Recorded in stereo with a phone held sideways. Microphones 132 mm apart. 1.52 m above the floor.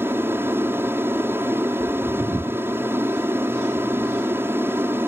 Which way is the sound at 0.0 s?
15° right (ahead or behind).